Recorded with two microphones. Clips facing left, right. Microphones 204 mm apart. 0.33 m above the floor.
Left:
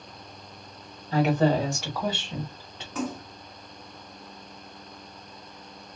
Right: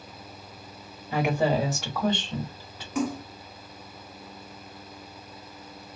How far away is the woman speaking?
About 1.4 m.